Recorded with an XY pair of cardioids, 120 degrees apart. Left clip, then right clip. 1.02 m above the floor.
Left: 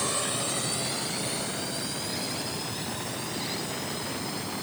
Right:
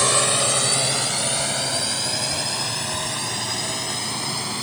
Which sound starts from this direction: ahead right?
A drone, at 0.0 s.